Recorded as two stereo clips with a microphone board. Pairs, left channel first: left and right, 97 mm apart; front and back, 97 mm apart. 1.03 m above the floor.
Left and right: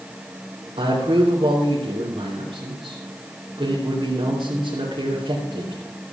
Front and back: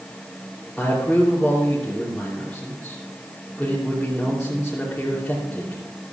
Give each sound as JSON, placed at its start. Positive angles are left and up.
{"t": 0.8, "sound": "a man speaking", "azimuth_deg": -80, "distance_m": 3.0}